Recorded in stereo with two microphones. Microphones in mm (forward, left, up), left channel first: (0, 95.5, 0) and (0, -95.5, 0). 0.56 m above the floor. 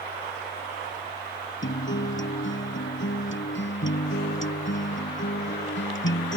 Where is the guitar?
85° left.